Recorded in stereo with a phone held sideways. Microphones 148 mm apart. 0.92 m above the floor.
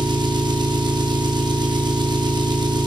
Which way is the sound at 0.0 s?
30° right (ahead or behind).